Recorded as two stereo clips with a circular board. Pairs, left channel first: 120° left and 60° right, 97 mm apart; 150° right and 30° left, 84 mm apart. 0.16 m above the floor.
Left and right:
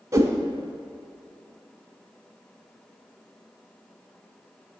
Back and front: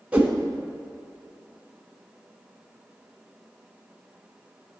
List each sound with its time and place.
0.1 s a whoosh: 35° right, 0.6 m